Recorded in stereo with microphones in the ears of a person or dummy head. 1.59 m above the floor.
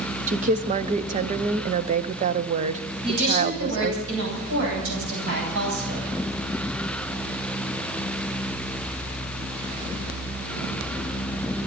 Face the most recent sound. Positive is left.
turn(degrees=-80)